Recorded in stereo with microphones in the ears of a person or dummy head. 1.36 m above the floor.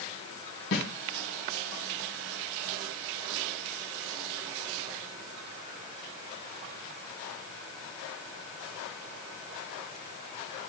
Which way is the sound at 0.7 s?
60° left (ahead or behind).